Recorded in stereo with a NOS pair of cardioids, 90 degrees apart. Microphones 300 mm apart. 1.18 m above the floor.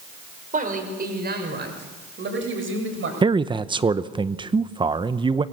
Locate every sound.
0.5 s a man speaking: 25° right, 5.5 m; by 3.1 s 45° right, 7 m
3.2 s a man speaking: 15° right, 0.7 m